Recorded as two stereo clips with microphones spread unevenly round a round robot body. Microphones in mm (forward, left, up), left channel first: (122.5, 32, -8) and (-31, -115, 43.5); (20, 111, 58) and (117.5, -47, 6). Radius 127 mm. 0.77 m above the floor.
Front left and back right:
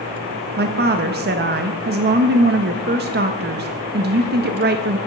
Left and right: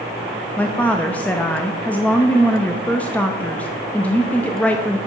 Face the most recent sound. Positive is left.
turn(degrees=-135)